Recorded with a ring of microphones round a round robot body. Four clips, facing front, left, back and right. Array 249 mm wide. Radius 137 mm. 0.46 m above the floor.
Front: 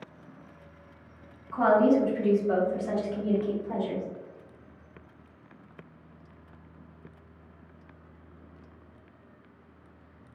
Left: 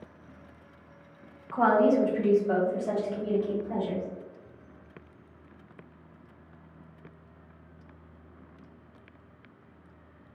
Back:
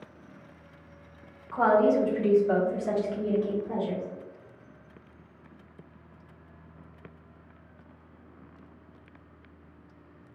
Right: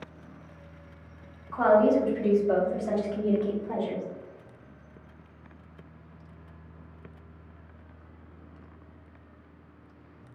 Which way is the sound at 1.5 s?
125° left.